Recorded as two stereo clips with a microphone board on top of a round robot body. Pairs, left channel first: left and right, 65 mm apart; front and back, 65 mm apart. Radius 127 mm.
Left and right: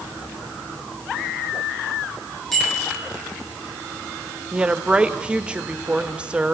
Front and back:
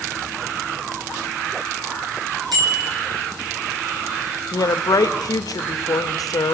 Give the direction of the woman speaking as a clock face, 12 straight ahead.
1 o'clock.